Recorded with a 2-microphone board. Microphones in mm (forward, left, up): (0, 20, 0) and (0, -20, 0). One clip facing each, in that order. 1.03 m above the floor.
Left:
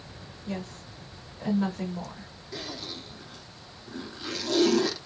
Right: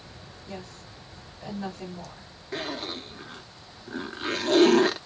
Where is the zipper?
40° right (ahead or behind), 0.6 m.